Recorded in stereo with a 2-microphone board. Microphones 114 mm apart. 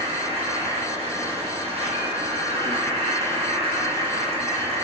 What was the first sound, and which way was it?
An insect, 65° right (ahead or behind).